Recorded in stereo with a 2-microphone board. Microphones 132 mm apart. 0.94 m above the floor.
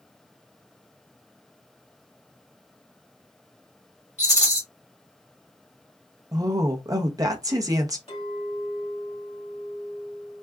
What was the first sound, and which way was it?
A rattle, 65° left (ahead or behind).